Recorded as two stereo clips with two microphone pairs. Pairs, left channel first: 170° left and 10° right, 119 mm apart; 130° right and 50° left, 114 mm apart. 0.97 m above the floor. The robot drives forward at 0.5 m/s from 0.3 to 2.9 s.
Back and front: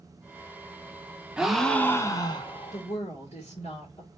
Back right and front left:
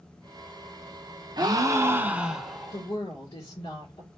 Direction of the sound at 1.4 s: 65° left.